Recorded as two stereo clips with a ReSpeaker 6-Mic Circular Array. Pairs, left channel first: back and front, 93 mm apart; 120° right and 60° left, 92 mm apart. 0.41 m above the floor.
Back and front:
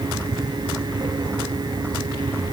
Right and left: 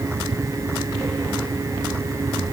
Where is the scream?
I don't hear a scream.